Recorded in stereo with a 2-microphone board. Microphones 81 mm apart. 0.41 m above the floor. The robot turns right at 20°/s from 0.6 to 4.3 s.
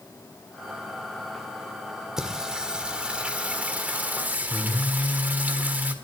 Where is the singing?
5° right (ahead or behind), 1.5 m; by 5.9 s 20° right (ahead or behind), 1.5 m.